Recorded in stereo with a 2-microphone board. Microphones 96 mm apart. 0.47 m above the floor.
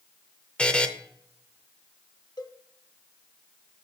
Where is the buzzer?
10° left (ahead or behind), 0.7 m.